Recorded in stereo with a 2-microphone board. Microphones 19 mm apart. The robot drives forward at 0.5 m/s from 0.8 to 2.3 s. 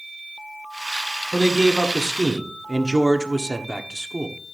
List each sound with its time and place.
1.3 s a man speaking: 20° right (ahead or behind), 1.6 m; by 4.4 s 25° right (ahead or behind), 1.2 m